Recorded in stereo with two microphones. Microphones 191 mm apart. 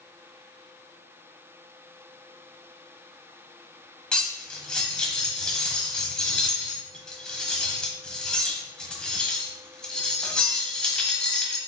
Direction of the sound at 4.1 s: 5° left (ahead or behind).